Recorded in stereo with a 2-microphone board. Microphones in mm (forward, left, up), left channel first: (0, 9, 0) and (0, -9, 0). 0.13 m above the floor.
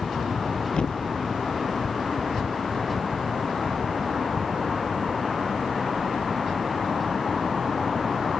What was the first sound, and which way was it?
A thud, 70° left (ahead or behind).